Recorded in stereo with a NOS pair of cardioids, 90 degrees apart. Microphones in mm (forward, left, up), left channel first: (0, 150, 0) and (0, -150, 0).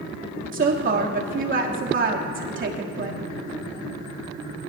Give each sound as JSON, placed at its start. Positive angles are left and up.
{"t": 0.5, "sound": "a woman speaking", "azimuth_deg": -40, "distance_m": 3.0}